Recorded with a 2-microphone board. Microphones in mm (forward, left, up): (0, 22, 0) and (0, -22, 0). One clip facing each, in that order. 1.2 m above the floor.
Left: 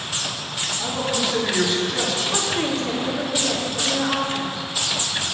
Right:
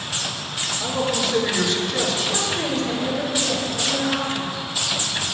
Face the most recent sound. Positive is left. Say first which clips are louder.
# left 1 dB
turn(degrees=50)  # may be behind; listen again after turning